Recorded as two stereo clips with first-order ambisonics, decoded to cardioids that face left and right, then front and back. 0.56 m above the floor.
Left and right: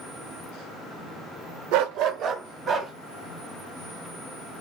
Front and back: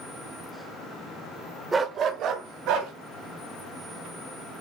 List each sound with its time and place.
1.7 s a dog barking: 105° right, 0.5 m; by 2.9 s 150° right, 1.4 m